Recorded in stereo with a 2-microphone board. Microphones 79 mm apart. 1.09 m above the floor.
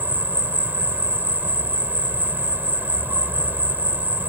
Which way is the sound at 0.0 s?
20° right (ahead or behind).